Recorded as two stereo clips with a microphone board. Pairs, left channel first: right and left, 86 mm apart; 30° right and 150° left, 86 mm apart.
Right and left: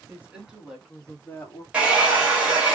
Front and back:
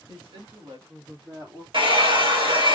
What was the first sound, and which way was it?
A woman speaking, 165° left.